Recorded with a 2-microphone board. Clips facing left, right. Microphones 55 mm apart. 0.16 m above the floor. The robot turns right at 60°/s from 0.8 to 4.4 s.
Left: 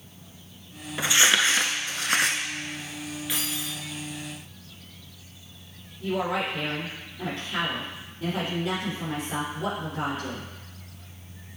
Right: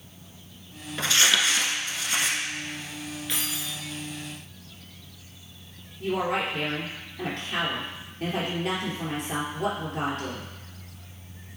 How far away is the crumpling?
About 0.7 m.